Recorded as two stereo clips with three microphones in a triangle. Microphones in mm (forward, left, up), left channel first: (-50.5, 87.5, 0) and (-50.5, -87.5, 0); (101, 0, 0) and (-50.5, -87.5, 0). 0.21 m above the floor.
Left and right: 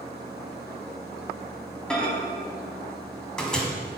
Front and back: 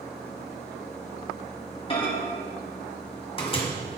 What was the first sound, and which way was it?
A microwave, 10° left.